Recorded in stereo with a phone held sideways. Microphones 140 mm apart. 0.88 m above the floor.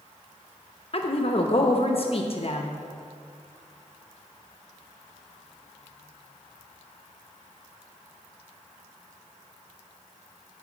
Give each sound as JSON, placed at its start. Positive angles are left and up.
{"t": 0.9, "sound": "a woman speaking", "side_deg": 50, "distance_m": 0.8}